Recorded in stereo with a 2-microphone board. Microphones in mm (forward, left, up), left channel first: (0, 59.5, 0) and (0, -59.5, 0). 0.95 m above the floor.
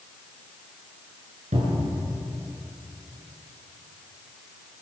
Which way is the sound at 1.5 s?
85° right.